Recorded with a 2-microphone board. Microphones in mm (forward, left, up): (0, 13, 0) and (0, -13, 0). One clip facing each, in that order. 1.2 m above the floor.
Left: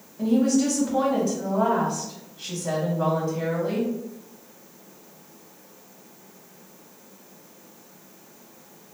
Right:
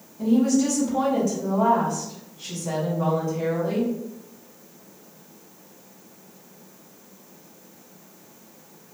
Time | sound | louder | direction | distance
0.2 | a woman speaking | right 1 dB | 75° left (ahead or behind) | 1.1 m